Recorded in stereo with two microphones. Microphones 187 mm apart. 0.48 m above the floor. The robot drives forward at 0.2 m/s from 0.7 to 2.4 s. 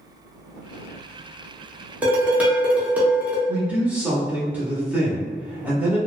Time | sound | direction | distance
2.0 | dishes clattering | 10° right (ahead or behind) | 0.6 m
3.5 | a man speaking | 10° right (ahead or behind) | 0.8 m